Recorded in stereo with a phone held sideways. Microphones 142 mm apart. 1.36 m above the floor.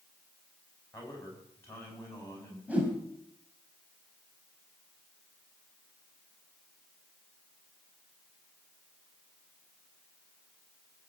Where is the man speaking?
20° left (ahead or behind), 9 m.